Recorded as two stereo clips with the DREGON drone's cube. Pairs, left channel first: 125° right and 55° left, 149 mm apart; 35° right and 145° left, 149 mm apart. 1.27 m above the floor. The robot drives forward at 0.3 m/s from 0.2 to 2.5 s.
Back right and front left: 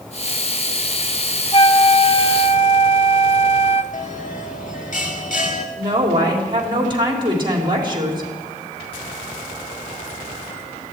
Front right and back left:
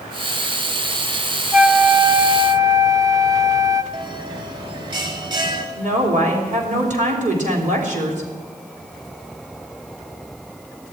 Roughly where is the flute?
Behind right.